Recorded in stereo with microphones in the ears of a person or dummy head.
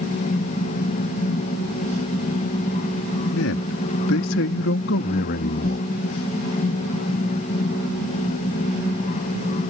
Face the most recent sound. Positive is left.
turn(degrees=55)  # may be behind; listen again after turning